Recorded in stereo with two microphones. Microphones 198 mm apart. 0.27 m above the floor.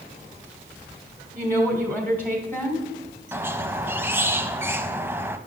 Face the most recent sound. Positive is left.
turn(degrees=-10)  # may be behind; listen again after turning